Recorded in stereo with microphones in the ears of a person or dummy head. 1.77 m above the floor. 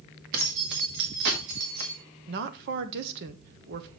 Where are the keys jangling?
55° right (ahead or behind), 2.0 m; by 2.0 s 50° right (ahead or behind), 1.9 m.